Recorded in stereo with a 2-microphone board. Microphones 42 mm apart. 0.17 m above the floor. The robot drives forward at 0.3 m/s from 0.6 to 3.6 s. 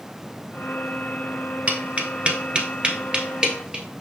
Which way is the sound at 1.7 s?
35° right (ahead or behind).